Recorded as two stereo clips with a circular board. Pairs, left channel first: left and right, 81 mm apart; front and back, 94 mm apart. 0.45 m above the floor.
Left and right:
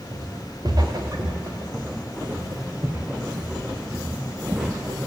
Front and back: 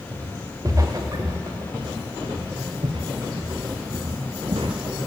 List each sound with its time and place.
0.1 s footsteps: 120° right, 4 m; by 4.8 s 170° right, 3 m